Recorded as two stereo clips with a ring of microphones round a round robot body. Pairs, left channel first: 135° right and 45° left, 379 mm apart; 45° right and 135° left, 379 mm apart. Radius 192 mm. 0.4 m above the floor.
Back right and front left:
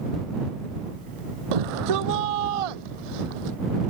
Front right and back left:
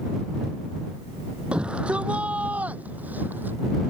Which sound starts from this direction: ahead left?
A shout, at 1.5 s.